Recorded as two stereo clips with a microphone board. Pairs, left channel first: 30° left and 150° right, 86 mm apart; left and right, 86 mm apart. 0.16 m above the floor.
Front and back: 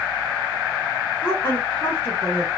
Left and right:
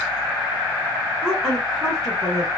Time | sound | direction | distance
1.2 | a woman speaking | straight ahead | 1.3 m